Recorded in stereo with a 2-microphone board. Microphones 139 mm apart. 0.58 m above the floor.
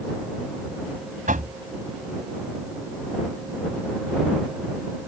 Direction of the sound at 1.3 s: 70° right (ahead or behind).